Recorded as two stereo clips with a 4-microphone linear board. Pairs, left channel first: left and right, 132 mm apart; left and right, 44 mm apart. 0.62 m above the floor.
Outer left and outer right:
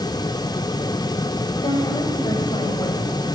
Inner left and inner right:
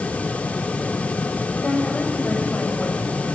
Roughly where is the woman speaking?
Left.